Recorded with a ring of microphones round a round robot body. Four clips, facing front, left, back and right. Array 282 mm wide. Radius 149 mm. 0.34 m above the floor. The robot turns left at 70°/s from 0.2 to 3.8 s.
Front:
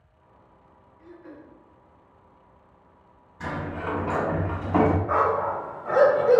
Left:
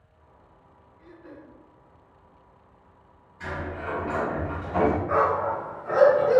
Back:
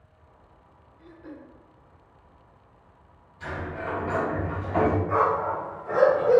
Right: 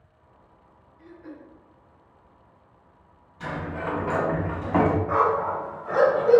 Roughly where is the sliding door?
Ahead.